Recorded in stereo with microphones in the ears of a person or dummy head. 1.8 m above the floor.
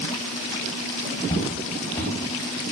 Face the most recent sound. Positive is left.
turn(degrees=35)  # may be behind; listen again after turning